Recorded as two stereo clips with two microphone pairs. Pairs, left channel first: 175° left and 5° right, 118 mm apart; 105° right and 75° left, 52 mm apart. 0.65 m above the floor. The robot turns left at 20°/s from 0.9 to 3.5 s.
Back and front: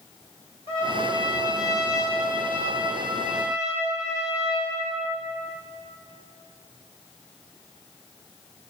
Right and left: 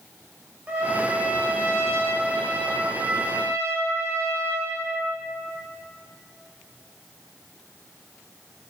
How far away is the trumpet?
About 1.1 m.